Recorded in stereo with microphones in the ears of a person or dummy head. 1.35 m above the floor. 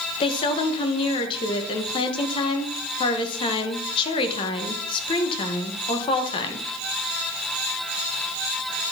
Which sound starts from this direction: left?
A woman speaking, at 0.2 s.